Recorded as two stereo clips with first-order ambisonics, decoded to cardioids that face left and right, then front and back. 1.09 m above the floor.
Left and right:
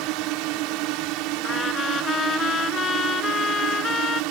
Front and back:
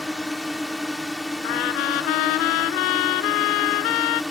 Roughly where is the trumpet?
Ahead.